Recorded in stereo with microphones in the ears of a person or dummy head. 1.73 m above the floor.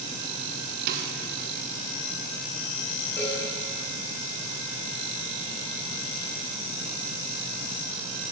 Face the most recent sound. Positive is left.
turn(degrees=10)  # may be behind; listen again after turning